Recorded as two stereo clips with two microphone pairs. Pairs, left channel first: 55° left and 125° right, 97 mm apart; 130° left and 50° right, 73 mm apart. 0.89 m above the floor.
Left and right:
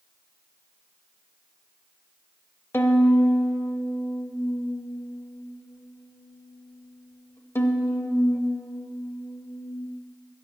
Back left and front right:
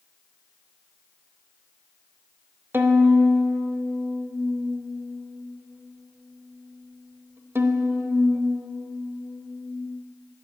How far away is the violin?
About 0.8 m.